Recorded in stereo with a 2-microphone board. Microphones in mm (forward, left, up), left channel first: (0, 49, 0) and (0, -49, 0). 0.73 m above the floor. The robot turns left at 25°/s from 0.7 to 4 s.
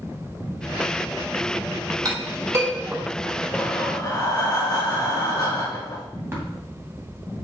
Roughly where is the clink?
Right.